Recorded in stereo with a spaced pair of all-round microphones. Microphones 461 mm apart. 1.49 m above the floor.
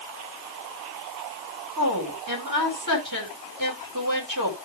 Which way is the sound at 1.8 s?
45° right (ahead or behind).